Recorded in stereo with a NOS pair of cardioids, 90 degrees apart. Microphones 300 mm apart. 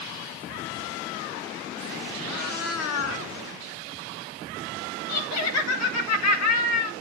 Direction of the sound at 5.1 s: 60° left.